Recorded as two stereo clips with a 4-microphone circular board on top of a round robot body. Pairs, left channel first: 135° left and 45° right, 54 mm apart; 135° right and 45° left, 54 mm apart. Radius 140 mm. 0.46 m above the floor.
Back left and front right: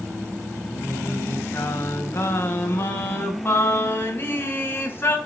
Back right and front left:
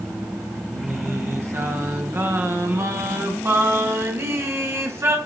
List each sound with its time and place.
0.7 s singing: 85° left, 3.5 m